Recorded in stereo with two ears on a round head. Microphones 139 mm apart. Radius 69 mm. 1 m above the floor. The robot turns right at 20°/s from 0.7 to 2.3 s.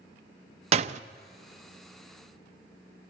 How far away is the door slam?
About 0.6 m.